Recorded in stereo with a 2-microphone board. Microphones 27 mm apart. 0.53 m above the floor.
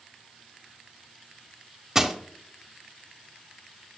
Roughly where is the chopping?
I don't hear chopping.